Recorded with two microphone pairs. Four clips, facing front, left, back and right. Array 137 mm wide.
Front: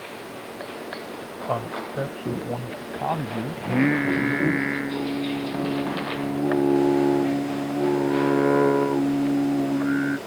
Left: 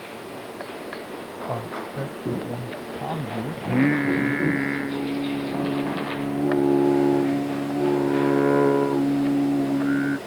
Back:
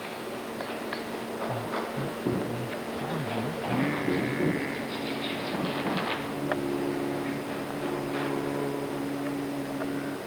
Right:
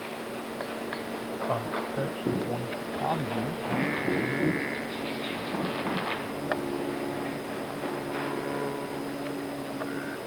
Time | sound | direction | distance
1.5 | a man speaking | 15° right | ?
3.6 | singing | 35° left | ?